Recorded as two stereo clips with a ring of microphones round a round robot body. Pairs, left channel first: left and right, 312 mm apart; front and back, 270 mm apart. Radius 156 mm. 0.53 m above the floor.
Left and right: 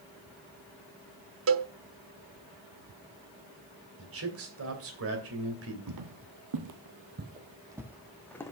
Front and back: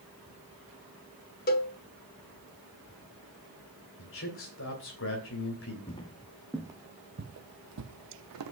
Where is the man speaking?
45° right, 2.5 m.